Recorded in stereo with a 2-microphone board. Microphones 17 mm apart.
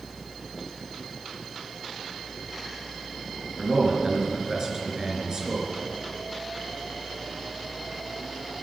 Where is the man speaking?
35° right (ahead or behind), 4 m.